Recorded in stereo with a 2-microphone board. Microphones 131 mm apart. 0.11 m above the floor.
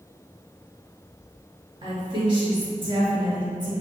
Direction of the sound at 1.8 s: 35° right (ahead or behind).